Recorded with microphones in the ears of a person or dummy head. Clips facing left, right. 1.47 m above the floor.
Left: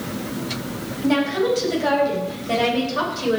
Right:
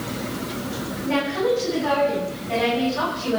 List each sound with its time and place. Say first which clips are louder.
1.0 s a woman speaking: left 3 dB; 75° left (ahead or behind), 8.5 m; by 3.4 s 80° left, 6 m